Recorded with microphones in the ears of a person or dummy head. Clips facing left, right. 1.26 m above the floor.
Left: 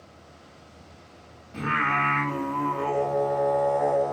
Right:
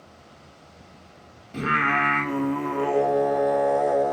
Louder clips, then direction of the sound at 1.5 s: Right 3 dB; 35° right (ahead or behind).